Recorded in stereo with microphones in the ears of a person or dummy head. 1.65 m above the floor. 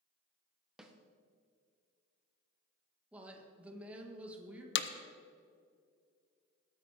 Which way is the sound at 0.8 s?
5° right (ahead or behind).